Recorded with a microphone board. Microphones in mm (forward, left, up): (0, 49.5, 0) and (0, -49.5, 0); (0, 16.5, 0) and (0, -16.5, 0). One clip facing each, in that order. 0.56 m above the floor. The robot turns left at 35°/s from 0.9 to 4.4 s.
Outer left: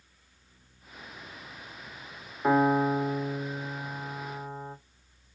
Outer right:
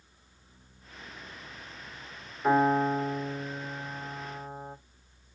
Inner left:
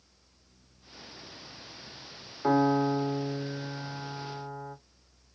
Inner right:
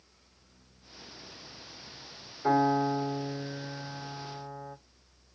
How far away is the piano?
About 1.8 m.